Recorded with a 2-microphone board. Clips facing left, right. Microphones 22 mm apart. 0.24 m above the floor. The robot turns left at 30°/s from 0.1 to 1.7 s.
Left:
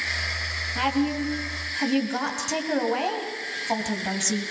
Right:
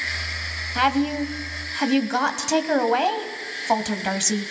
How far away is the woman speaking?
About 1.7 m.